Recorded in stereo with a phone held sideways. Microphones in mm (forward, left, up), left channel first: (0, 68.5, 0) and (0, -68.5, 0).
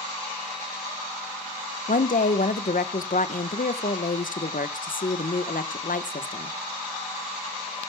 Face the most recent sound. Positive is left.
turn(degrees=75)  # may be behind; listen again after turning